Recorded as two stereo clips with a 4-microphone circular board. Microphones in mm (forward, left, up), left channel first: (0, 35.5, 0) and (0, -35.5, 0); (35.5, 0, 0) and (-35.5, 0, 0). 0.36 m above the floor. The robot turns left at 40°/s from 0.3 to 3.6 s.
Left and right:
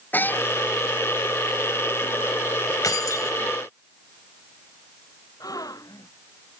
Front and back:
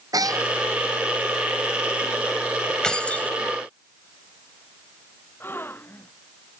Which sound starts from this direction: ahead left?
A gasp, at 5.4 s.